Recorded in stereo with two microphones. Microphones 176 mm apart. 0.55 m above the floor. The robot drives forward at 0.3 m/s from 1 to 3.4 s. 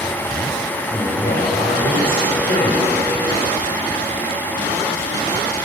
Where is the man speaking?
55° left (ahead or behind), 3.5 m; by 3.3 s 65° left (ahead or behind), 3.5 m.